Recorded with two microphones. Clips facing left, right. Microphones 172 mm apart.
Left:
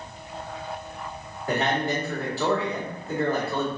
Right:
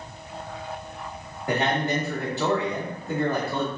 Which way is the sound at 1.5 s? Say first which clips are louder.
Right 1 dB; 20° right (ahead or behind).